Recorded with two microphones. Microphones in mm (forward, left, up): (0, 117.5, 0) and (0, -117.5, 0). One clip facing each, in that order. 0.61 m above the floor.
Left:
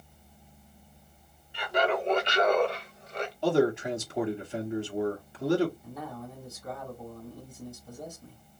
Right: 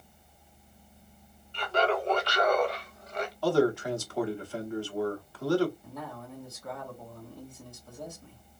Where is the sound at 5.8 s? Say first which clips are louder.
Left 2 dB; 5° left (ahead or behind), 2 m.